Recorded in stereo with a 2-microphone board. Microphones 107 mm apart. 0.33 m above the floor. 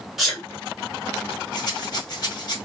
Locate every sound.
0.2 s a sneeze: 5° right (ahead or behind), 1.4 m
1.5 s a rattle: 40° left (ahead or behind), 1.8 m